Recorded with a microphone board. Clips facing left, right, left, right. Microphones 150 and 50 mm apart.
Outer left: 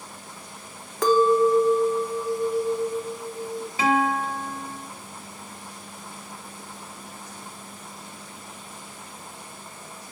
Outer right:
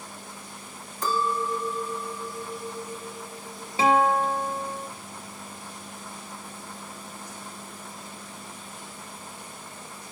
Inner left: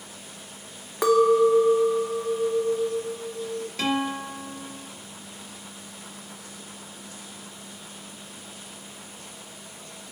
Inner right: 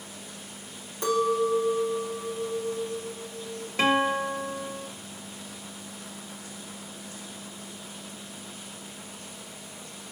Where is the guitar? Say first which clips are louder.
Outer right 2 dB, inner right 4 dB; 25° right (ahead or behind), 1.7 m.